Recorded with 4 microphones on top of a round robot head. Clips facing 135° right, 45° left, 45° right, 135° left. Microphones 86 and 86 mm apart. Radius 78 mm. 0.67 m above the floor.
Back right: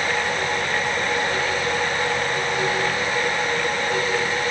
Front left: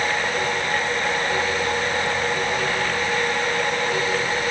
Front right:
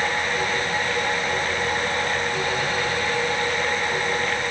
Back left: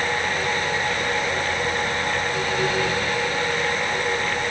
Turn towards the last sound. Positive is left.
No sound to turn to.